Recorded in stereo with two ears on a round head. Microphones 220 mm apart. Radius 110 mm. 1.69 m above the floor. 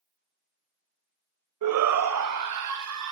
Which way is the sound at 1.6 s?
80° right.